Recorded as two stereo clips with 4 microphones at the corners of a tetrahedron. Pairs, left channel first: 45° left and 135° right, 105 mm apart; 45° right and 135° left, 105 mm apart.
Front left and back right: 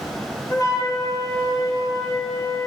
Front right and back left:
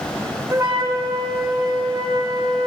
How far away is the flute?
About 1.8 m.